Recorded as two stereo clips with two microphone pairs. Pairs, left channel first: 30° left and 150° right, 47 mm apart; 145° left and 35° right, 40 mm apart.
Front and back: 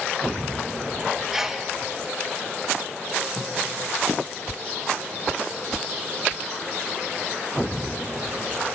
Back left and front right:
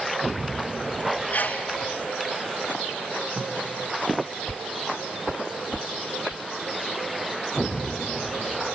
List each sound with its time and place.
1.3 s a sneeze: 135° left, 1.8 m
3.4 s tape being pulled: 60° right, 3 m